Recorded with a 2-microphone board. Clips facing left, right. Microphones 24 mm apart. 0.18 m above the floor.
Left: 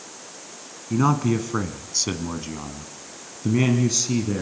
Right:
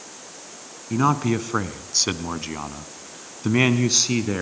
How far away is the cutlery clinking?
No cutlery clinking in this recording.